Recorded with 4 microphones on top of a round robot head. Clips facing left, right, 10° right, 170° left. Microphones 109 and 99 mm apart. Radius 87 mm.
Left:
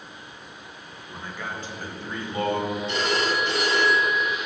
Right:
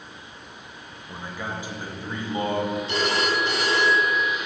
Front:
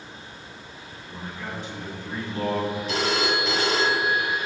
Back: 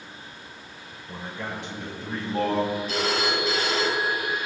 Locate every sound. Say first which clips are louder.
1.1 s a man speaking: right 2 dB, back 1 dB; 165° right, 1.7 m
2.9 s a phone ringing: left 1 dB, front 1 dB; 30° right, 2 m